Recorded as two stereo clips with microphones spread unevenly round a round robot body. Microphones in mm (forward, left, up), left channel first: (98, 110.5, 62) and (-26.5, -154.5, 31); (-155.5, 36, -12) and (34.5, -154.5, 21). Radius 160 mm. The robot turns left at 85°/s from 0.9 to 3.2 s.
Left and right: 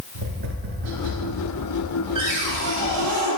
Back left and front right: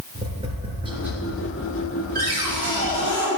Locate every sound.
0.1 s tapping: 115° right, 3 m; by 1.4 s 155° right, 3 m
2.1 s a cupboard door: 100° right, 4 m; by 3.3 s 170° left, 4 m